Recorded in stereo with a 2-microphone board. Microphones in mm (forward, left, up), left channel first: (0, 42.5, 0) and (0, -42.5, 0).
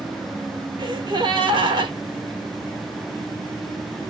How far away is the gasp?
About 1.4 m.